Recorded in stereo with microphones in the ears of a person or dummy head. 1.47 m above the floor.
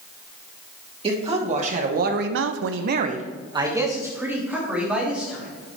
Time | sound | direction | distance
1.0 | a man speaking | 25° right (ahead or behind) | 2 m